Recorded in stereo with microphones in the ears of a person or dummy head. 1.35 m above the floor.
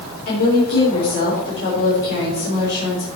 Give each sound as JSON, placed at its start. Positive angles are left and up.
{"t": 0.3, "sound": "a woman speaking", "side_deg": 60, "distance_m": 3.5}